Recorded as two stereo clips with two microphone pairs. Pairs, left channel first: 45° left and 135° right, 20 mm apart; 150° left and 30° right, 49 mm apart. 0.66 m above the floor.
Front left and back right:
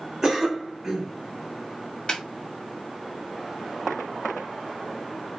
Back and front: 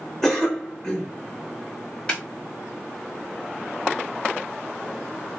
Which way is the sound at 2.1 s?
80° left.